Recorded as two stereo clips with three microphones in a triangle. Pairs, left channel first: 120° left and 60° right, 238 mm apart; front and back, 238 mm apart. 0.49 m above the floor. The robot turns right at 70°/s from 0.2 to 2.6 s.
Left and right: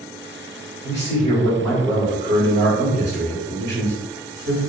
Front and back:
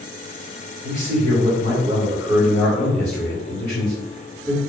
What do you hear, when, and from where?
0.8 s a man speaking: 160° left, 1.5 m; by 4.6 s 75° right, 1.5 m